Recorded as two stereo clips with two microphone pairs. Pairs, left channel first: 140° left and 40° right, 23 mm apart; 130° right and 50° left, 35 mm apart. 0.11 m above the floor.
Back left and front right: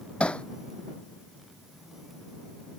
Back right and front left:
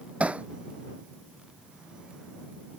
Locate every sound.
0.2 s hammering: 100° left